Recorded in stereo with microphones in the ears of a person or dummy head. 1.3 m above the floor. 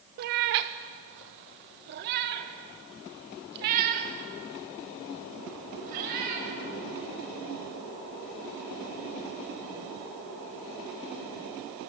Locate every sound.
0.2 s a cat meowing: 35° right (ahead or behind), 0.6 m; by 6.5 s 50° right (ahead or behind), 4.5 m